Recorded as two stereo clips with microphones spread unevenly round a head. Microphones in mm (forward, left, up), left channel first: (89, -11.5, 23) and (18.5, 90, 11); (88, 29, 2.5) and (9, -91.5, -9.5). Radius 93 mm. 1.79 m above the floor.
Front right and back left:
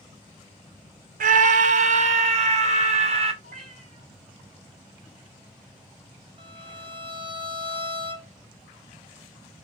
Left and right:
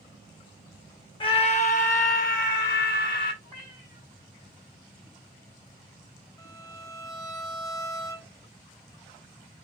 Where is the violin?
105° left, 1.0 m.